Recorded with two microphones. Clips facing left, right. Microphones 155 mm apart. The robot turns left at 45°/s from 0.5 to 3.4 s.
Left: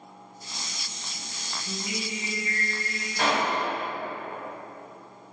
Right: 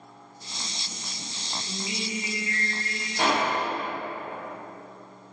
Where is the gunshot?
15° right (ahead or behind), 1.0 m; by 3.6 s 20° right (ahead or behind), 1.0 m.